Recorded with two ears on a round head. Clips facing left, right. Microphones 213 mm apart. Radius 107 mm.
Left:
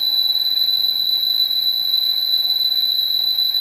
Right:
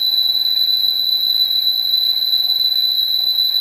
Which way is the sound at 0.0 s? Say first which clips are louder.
Right 1 dB; 30° right (ahead or behind).